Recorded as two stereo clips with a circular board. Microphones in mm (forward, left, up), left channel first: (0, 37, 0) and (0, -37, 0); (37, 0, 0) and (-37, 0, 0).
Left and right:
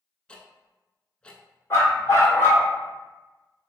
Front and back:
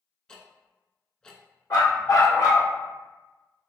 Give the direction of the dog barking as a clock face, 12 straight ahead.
11 o'clock.